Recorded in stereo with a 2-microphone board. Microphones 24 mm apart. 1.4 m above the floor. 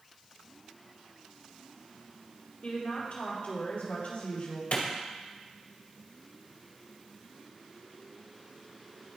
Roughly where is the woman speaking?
Left.